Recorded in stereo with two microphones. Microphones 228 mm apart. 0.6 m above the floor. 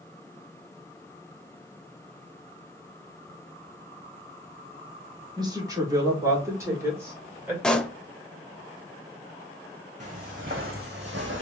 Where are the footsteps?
30° right (ahead or behind), 2 m; by 11.4 s 60° right (ahead or behind), 1.4 m.